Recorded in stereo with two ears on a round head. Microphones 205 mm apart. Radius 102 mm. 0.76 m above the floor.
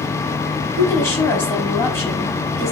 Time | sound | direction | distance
0.8 | a woman speaking | 15° left (ahead or behind) | 4.5 m